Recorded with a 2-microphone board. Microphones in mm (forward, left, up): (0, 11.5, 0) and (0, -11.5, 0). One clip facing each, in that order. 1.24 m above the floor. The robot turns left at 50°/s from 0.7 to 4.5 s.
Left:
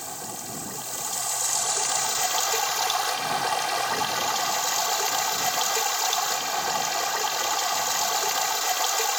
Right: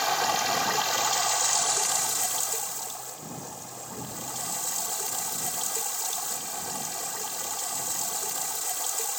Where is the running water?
130° right; by 9.2 s 40° left.